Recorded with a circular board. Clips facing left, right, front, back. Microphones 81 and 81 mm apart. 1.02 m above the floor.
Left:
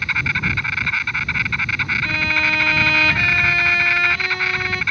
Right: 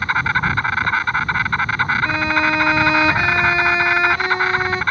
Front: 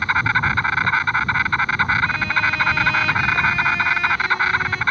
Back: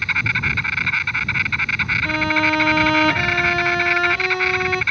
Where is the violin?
155° right.